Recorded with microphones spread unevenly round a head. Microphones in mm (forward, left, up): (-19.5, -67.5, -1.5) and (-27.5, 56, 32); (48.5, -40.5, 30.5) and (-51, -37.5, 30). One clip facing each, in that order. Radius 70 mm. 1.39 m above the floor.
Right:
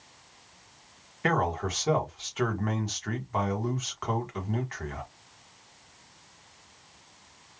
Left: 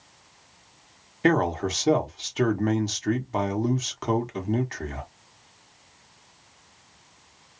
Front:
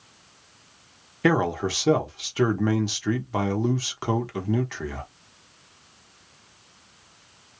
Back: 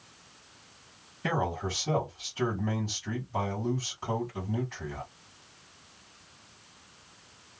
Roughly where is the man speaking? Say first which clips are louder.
Left 5 dB, front 8 dB; ahead left.